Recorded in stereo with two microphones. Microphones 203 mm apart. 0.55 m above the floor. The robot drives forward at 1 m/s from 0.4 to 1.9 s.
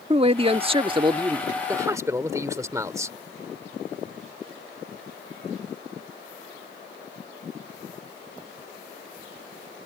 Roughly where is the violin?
No violin in this recording.